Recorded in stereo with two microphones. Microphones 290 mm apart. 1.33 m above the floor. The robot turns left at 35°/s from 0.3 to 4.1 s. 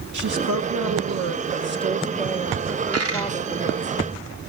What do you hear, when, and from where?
0.1 s a woman speaking: 90° right, 1.2 m; by 3.9 s 140° left, 1.2 m
2.9 s a dropped coin: 55° right (ahead or behind), 1.8 m; by 3.3 s 45° right (ahead or behind), 1.8 m